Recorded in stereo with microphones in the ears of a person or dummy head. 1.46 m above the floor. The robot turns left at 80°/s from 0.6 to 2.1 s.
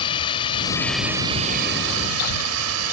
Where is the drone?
30° left; by 2.9 s 90° right.